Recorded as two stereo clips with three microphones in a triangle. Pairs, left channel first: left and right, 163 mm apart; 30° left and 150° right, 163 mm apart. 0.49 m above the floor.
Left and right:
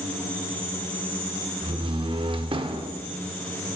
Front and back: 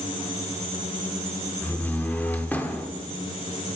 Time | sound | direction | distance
1.6 | a door slam | 45° right | 0.6 m